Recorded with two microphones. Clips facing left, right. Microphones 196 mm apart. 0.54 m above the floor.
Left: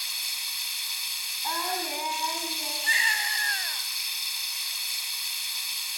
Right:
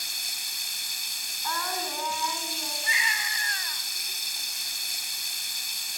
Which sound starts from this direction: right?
Running water, at 0.0 s.